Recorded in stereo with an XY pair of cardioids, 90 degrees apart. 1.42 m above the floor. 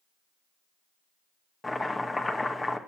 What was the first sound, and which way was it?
Chopping, 25° left.